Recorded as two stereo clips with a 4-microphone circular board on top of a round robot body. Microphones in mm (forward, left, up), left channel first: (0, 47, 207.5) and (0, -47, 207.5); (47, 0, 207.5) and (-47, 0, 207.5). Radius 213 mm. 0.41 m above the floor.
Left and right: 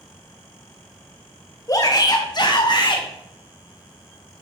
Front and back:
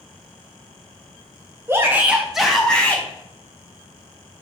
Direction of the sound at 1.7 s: 130° left.